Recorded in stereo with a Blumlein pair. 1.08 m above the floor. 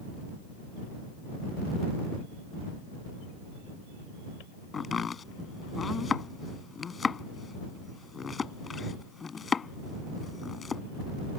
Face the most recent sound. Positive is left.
turn(degrees=15)